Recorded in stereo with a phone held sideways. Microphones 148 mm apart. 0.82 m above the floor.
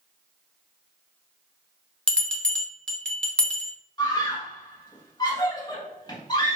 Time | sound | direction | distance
2.1 | a bell | 5° left (ahead or behind) | 0.9 m
4.0 | a scream | 30° left (ahead or behind) | 1.3 m